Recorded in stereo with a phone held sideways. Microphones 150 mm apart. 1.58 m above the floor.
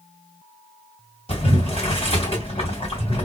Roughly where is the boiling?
Left.